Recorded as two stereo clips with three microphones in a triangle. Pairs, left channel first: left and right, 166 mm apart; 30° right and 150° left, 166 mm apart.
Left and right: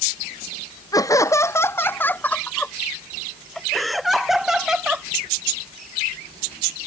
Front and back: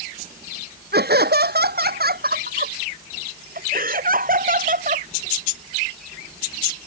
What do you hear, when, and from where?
0.9 s laughter: 160° left; by 5.1 s 175° right